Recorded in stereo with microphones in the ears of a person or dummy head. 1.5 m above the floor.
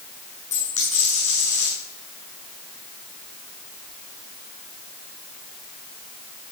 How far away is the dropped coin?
About 6 m.